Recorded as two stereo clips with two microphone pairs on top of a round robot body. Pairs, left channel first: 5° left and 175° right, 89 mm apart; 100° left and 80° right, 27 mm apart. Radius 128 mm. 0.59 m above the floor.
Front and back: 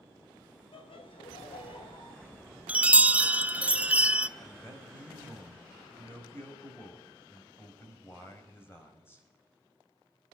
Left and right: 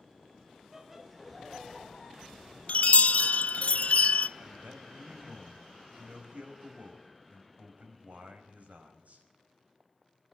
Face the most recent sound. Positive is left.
turn(degrees=-60)